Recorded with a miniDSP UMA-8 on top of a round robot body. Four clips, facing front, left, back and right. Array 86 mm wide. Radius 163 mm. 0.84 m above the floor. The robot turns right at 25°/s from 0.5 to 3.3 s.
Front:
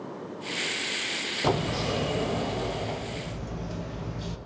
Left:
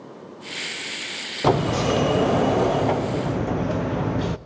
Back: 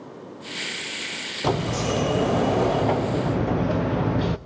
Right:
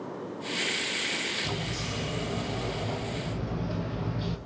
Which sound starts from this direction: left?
A sliding door, at 1.4 s.